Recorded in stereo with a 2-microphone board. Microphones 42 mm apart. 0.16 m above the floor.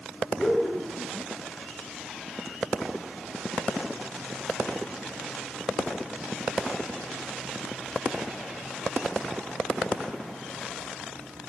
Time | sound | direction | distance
0.4 | laughter | 5° left (ahead or behind) | 1.3 m